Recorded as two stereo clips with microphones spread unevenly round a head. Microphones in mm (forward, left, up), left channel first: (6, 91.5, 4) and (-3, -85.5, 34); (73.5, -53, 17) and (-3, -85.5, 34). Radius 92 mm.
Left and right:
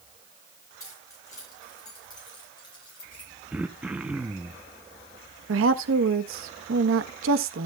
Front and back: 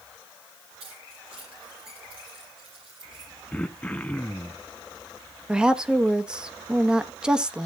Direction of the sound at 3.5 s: 55° right.